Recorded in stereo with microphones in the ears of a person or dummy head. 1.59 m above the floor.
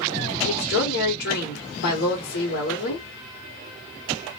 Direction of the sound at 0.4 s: 65° left (ahead or behind).